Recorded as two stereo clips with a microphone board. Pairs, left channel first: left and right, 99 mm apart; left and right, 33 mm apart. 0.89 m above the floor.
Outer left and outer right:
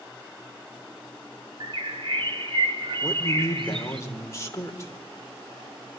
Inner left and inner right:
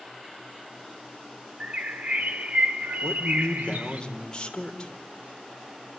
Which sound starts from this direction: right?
A bird, at 1.6 s.